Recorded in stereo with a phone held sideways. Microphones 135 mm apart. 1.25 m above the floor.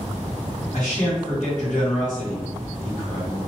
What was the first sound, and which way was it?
A man speaking, 60° left (ahead or behind).